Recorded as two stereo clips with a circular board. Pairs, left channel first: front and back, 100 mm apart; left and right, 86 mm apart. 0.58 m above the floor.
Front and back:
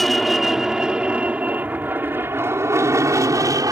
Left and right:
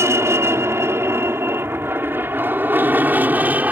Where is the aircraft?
85° right; by 3.7 s 155° right.